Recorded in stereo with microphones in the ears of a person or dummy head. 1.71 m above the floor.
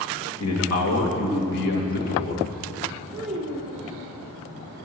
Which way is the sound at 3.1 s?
5° right (ahead or behind).